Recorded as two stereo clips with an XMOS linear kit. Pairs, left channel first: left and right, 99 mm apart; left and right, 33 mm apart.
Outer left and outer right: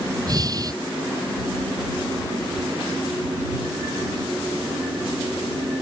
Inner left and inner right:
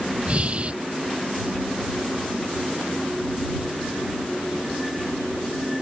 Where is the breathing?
40° right (ahead or behind).